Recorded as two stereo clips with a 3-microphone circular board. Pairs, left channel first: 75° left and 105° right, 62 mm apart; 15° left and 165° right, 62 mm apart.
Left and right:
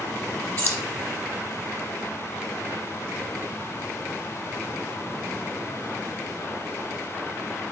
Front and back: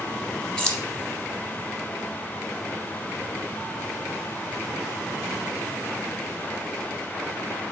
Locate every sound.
0.6 s keys jangling: 90° left, 0.8 m